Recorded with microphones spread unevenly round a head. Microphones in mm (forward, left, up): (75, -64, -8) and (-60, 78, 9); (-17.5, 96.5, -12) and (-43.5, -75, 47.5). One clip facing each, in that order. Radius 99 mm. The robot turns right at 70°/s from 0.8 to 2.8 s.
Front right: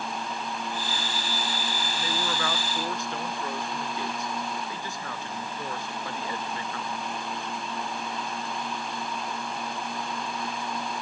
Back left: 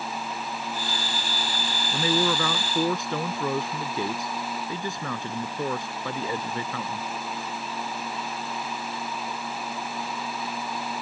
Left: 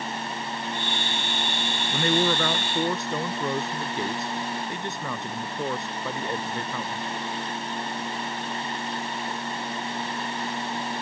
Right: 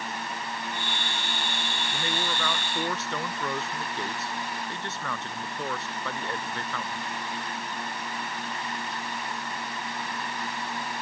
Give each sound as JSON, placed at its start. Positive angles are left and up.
{"t": 1.9, "sound": "a man speaking", "azimuth_deg": 95}